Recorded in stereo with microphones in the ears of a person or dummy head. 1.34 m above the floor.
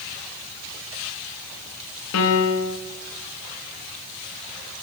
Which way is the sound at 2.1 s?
70° left (ahead or behind).